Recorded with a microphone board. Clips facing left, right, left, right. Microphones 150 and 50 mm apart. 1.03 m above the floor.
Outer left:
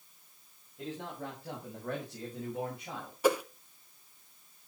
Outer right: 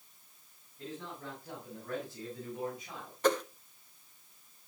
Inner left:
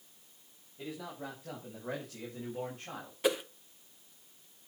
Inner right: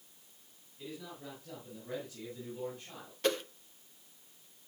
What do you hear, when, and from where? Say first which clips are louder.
0.8 s a man speaking: outer left 4 dB, inner left 4 dB; 85° left, 5.5 m; by 3.1 s 70° left (ahead or behind), 5.5 m
3.2 s a whoosh: outer left 1 dB, inner left 1 dB; 10° left (ahead or behind), 0.9 m